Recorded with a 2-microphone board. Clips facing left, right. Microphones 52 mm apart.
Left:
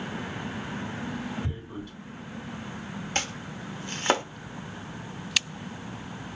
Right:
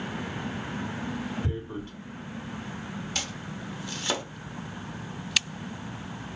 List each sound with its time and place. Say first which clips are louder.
1.4 s tearing paper: right 3 dB; 45° right (ahead or behind), 2.5 m
3.1 s chopping: left 3 dB; 40° left (ahead or behind), 0.7 m